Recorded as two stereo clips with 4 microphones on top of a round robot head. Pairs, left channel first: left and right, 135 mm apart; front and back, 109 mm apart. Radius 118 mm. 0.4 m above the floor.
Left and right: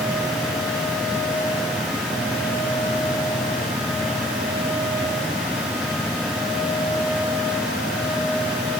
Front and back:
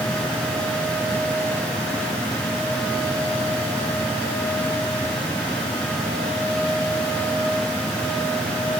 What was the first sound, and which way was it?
Only background noise.